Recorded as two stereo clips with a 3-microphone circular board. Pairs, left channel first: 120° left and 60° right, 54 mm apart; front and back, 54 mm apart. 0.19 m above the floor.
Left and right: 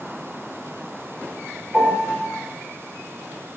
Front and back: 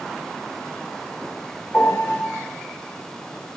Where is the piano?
5° right, 1.2 m.